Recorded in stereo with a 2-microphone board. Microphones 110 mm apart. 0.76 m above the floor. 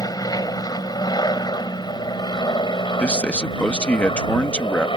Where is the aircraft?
35° left (ahead or behind); by 5.0 s 50° left (ahead or behind).